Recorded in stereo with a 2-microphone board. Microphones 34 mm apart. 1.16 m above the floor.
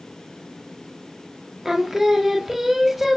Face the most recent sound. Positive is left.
turn(degrees=-10)  # may be behind; listen again after turning